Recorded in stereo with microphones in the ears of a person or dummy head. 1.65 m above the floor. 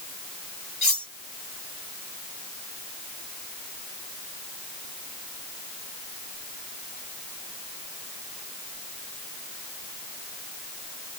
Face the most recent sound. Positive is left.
turn(degrees=-15)  # may be behind; listen again after turning